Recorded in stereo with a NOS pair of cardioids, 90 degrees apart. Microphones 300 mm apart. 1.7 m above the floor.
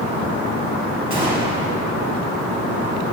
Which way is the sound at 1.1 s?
15° right.